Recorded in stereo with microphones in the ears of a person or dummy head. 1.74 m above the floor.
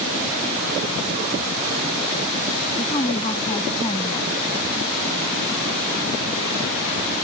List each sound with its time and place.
2.8 s a woman speaking: 25° left (ahead or behind)